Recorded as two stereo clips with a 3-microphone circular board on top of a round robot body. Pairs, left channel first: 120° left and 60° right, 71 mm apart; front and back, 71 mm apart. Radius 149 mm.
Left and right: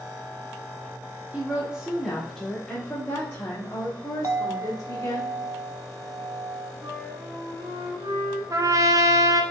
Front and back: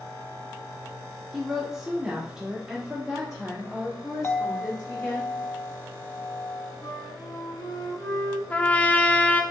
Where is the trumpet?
65° right, 0.6 m.